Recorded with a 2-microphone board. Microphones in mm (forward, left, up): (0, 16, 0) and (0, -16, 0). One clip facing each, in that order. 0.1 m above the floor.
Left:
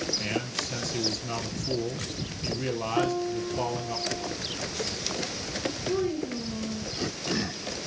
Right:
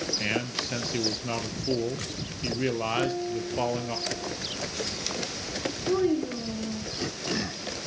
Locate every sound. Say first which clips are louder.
0.2 s a man speaking: right 2 dB; 25° right (ahead or behind), 1.4 m
3.0 s a piano: left 1 dB; 40° left (ahead or behind), 3.5 m
5.9 s a child speaking: right 5 dB; 45° right (ahead or behind), 4.5 m